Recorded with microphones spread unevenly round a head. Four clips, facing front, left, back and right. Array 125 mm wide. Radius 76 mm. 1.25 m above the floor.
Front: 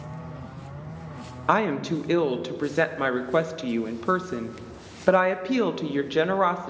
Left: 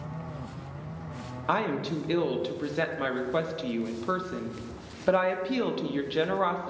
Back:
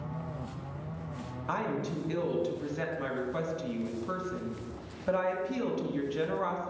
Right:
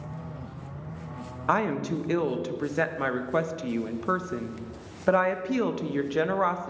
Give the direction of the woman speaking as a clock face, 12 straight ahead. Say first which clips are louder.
Right 2 dB, front 10 dB; 12 o'clock.